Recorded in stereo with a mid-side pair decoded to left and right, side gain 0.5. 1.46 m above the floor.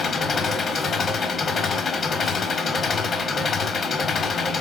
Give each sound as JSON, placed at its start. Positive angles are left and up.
{"t": 0.0, "sound": "an engine running", "azimuth_deg": 40, "distance_m": 0.8}